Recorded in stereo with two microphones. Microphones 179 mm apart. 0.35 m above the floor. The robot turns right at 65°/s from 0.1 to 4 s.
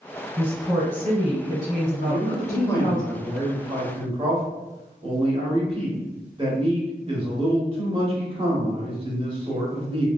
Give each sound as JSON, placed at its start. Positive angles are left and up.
{"t": 0.4, "sound": "a woman speaking", "azimuth_deg": -25, "distance_m": 1.5}
{"t": 2.0, "sound": "a man speaking", "azimuth_deg": 105, "distance_m": 1.0}